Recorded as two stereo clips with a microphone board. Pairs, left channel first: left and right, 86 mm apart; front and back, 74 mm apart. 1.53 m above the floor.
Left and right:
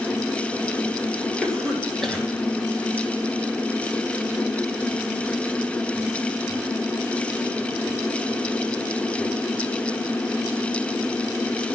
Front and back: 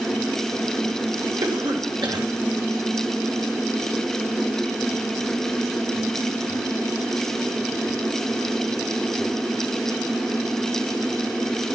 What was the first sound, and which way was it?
A cough, 175° left.